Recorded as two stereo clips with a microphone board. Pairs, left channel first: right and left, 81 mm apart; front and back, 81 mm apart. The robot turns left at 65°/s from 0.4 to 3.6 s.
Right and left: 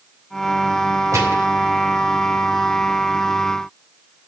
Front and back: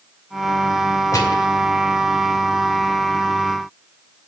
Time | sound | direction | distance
1.1 | a gunshot | 45° left | 2.5 m